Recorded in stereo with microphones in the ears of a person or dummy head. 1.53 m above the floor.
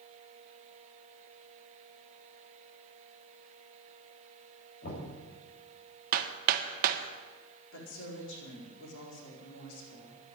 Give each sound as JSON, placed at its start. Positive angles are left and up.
{"t": 4.8, "sound": "knocking", "side_deg": 55, "distance_m": 7.5}
{"t": 6.1, "sound": "hammering", "side_deg": -50, "distance_m": 1.1}
{"t": 7.7, "sound": "a woman speaking", "side_deg": 75, "distance_m": 4.5}